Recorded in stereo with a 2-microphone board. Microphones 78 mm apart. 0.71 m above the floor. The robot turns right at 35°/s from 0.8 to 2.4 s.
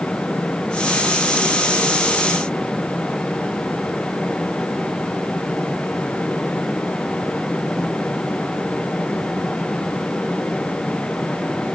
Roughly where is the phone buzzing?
No phone buzzing in this recording.